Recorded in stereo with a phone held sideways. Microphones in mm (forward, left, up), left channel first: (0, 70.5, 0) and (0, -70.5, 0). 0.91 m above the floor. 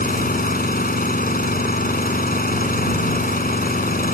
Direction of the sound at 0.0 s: 85° left.